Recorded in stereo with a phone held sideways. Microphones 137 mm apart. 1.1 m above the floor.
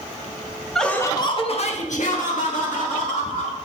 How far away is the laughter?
About 1.1 m.